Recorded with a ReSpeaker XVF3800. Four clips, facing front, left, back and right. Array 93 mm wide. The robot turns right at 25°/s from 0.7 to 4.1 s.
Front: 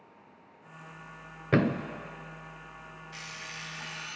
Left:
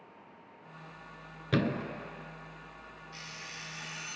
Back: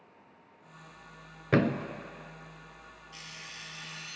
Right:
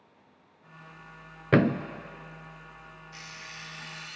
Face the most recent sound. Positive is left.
turn(degrees=20)